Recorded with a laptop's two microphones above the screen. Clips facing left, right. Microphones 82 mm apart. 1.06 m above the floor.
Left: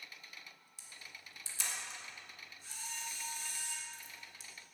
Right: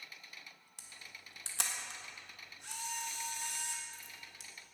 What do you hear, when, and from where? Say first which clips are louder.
0.8 s a camera shutter: even; 65° right (ahead or behind), 1.4 m